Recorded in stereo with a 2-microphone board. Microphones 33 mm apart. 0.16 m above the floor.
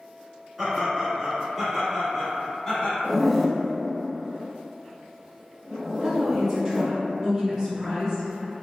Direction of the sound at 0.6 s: 10° right (ahead or behind).